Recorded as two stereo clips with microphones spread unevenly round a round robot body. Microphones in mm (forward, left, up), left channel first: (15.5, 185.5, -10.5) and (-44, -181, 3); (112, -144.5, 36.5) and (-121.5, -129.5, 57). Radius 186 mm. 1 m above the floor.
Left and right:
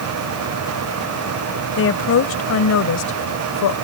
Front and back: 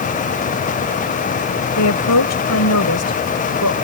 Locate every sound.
1.8 s a woman speaking: 20° left; by 3.8 s 40° left